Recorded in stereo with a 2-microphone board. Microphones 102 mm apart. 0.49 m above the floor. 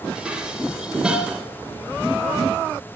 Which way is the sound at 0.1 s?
10° right (ahead or behind).